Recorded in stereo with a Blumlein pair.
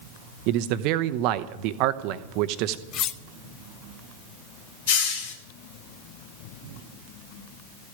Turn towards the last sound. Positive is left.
turn(degrees=55)